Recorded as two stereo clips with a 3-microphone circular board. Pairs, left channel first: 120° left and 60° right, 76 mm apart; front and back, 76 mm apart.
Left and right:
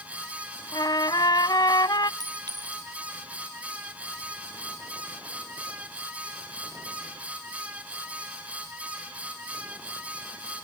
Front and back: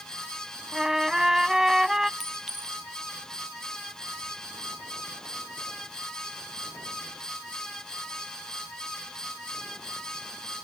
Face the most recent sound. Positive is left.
turn(degrees=-95)